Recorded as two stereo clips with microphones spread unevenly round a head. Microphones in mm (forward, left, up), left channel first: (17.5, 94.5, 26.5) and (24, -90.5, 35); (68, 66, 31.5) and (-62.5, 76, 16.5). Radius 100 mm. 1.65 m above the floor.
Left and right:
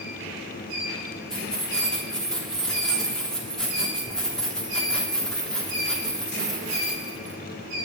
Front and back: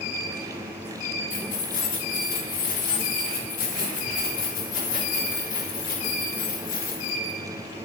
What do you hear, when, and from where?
1.3 s keys jangling: 5° left, 3.5 m